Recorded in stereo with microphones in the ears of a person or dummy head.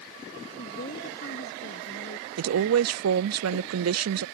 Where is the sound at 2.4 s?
75° right (ahead or behind).